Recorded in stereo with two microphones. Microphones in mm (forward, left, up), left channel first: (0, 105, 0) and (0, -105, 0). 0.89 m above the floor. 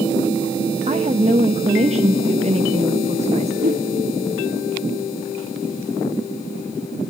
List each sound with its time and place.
0.9 s a woman speaking: 30° right (ahead or behind), 0.9 m
3.6 s a whoosh: 40° right (ahead or behind), 1.8 m